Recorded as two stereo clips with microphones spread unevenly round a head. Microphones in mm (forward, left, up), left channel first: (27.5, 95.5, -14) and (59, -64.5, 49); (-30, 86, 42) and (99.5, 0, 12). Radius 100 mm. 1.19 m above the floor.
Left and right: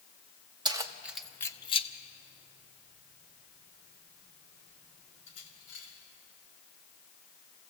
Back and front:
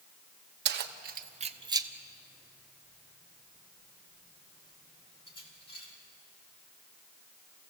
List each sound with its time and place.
0.7 s keys jangling: 20° right, 1.2 m; by 5.9 s 95° left, 4.5 m